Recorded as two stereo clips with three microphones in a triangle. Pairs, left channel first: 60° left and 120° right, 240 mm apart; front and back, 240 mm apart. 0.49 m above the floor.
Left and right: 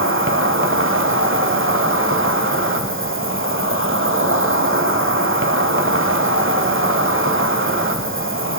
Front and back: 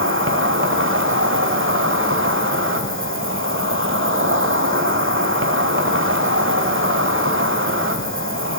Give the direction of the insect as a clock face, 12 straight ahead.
5 o'clock.